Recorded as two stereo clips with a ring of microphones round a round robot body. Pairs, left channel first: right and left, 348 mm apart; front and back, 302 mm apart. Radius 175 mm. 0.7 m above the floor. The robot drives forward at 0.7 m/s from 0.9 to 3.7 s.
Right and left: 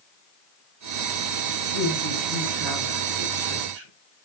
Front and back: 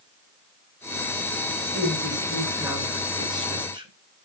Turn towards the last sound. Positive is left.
turn(degrees=105)